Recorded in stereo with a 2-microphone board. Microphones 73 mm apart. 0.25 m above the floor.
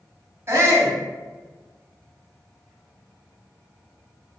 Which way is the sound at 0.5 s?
40° right (ahead or behind).